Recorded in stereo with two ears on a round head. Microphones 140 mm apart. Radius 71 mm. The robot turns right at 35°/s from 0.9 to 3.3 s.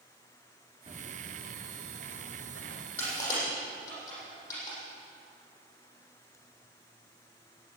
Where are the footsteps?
35° right (ahead or behind), 3 m; by 2.9 s 65° right (ahead or behind), 4 m.